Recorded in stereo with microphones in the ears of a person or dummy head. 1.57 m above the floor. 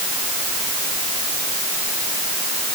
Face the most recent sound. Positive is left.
No sound to turn to.